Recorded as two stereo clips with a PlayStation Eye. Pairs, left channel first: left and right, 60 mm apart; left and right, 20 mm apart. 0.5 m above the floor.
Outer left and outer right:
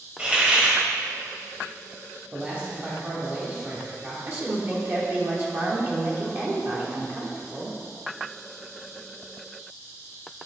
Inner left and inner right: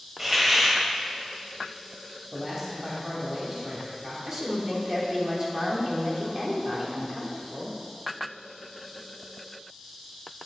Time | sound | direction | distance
0.2 | a hiss | 20° right (ahead or behind) | 1.0 m
2.3 | a man speaking | 25° right (ahead or behind) | 1.1 m
4.2 | a woman speaking | 40° right (ahead or behind) | 1.3 m